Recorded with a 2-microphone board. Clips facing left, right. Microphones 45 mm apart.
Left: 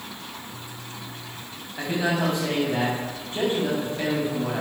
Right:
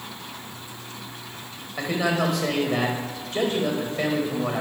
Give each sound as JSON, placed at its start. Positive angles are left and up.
{"t": 1.8, "sound": "a man speaking", "side_deg": -80, "distance_m": 5.0}